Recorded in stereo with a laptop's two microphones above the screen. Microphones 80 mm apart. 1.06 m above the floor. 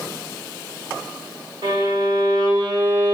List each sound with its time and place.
1.6 s a violin: 70° right (ahead or behind), 1.3 m